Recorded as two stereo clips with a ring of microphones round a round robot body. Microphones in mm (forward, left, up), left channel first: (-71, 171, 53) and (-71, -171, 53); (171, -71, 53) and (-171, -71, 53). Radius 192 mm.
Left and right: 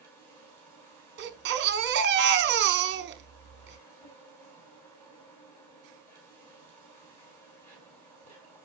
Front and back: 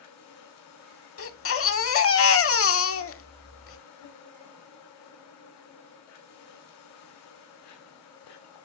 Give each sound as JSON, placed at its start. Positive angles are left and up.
{"t": 0.0, "sound": "an insect", "azimuth_deg": 5, "distance_m": 4.5}
{"t": 1.2, "sound": "a baby crying", "azimuth_deg": -40, "distance_m": 1.1}